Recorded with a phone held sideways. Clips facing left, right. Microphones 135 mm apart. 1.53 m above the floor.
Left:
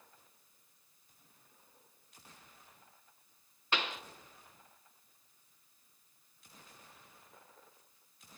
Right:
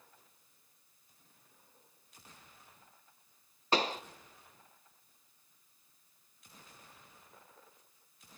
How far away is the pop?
About 0.6 m.